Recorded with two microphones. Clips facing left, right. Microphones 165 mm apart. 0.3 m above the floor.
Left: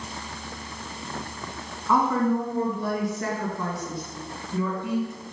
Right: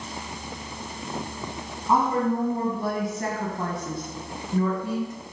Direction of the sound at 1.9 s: 35° right (ahead or behind).